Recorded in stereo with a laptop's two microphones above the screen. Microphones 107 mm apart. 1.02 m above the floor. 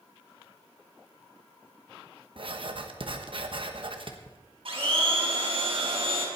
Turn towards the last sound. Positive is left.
turn(degrees=-60)  # may be behind; listen again after turning